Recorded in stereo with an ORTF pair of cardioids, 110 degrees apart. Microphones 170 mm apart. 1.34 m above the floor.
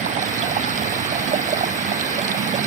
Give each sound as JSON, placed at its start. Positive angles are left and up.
{"t": 0.0, "sound": "running water", "azimuth_deg": -50}